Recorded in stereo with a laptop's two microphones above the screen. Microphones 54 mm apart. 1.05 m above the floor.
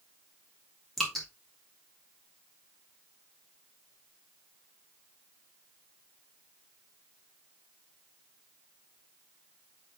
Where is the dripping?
5° left (ahead or behind), 3 m.